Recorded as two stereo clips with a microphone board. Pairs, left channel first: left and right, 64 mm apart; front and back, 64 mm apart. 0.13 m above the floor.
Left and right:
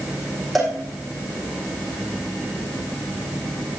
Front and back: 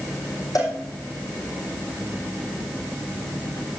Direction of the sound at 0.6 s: Straight ahead.